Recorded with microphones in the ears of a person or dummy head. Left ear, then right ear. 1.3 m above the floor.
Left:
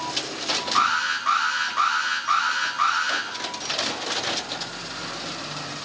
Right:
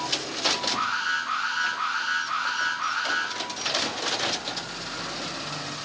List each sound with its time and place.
0.8 s an alarm: 55° left (ahead or behind), 4.5 m